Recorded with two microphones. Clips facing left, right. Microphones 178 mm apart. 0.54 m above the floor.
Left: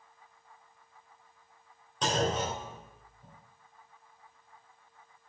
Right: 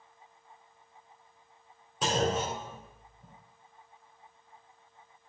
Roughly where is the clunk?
Centre.